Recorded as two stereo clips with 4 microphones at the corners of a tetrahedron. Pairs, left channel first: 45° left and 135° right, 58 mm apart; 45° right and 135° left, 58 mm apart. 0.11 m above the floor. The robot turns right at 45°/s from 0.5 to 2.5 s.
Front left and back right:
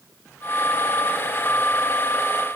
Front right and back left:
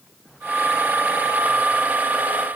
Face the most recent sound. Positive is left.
No sound to turn to.